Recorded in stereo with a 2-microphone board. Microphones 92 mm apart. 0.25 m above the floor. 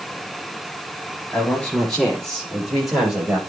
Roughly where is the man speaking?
Centre.